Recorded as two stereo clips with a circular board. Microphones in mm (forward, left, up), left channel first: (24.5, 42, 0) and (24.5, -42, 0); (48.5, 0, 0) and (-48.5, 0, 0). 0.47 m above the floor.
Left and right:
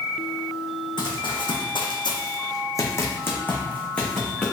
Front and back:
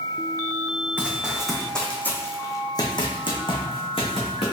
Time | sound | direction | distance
1.0 | running footsteps | 105° left | 1.5 m